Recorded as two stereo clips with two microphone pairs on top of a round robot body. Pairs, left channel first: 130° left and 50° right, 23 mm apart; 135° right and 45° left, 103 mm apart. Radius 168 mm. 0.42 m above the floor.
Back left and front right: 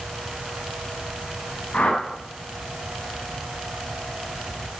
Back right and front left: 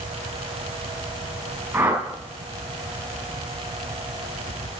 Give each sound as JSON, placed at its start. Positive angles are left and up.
{"t": 1.7, "sound": "a whoosh", "azimuth_deg": 115, "distance_m": 5.0}